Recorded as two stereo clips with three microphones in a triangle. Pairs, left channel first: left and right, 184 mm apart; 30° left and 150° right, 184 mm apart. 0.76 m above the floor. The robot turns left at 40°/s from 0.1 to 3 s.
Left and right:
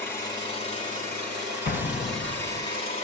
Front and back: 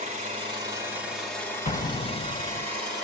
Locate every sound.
0.0 s an engine running: 165° left, 5 m; by 3.0 s 50° left, 5 m
1.6 s an explosion: 75° left, 0.7 m; by 2.7 s 35° left, 0.7 m